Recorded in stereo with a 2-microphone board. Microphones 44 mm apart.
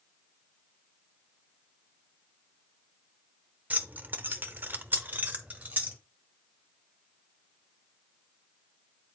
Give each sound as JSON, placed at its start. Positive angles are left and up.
{"t": 3.7, "sound": "keys jangling", "side_deg": -35, "distance_m": 0.7}